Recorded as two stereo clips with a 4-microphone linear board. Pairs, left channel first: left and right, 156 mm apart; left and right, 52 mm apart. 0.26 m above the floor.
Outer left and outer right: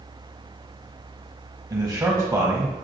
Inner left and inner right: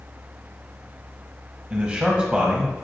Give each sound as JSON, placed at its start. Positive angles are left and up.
{"t": 1.7, "sound": "a man speaking", "side_deg": -20, "distance_m": 1.0}